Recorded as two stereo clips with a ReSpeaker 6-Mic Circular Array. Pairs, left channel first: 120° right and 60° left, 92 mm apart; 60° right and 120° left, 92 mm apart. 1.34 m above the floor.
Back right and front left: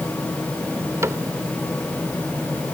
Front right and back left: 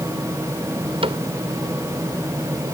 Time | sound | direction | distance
1.0 | a cupboard door | 120° left | ?